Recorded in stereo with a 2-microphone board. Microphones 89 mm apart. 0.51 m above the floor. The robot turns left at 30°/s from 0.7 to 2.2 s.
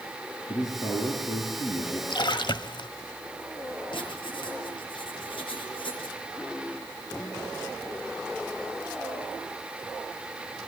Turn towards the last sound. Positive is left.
turn(degrees=65)  # may be behind; listen again after turning